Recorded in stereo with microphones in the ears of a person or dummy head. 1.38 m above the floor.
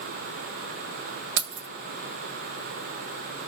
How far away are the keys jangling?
About 0.6 m.